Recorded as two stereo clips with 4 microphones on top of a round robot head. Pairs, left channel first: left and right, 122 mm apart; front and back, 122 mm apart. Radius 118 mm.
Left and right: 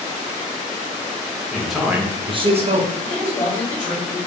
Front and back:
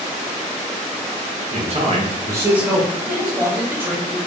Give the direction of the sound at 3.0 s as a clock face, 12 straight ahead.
8 o'clock.